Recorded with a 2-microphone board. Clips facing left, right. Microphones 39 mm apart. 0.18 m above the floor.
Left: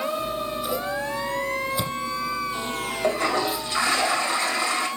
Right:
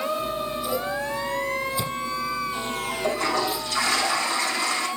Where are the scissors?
25° left (ahead or behind), 6.5 m.